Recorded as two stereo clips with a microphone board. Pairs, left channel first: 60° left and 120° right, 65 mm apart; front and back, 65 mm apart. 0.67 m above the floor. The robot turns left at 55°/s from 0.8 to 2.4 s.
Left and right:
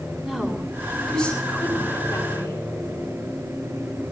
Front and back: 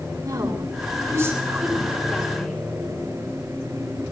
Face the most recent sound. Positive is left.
turn(degrees=75)